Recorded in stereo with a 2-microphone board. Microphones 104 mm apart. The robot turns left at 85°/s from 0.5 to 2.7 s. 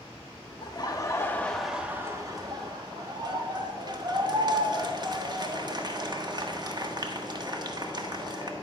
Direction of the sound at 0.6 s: 90° left.